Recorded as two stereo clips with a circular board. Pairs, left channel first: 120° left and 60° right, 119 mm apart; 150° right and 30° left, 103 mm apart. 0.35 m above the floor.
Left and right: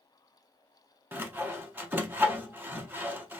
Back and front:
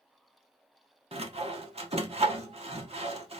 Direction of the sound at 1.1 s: 15° left.